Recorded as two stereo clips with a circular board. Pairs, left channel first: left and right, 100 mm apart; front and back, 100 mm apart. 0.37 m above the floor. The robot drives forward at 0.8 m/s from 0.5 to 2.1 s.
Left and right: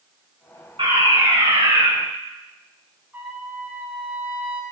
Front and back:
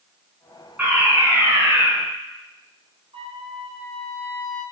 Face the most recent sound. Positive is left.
turn(degrees=-160)